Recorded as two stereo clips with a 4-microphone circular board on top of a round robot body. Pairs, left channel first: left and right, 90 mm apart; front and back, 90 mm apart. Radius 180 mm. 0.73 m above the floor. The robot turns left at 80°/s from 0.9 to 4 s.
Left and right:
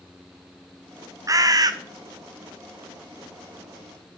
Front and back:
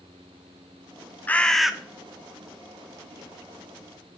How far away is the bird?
About 0.8 m.